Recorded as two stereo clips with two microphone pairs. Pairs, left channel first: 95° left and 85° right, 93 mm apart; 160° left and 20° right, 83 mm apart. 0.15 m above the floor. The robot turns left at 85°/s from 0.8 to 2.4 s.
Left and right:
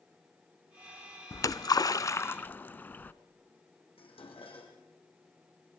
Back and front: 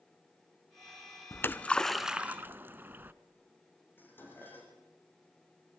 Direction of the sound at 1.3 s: 125° left.